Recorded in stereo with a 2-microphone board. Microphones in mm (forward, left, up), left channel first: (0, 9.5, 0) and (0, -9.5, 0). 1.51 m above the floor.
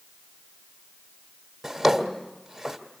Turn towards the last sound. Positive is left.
turn(degrees=-10)  # may be behind; listen again after turning